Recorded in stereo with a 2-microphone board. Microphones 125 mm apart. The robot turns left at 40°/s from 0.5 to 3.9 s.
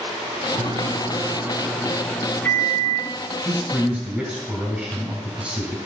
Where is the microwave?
125° right, 0.7 m; by 3.1 s 135° left, 0.7 m.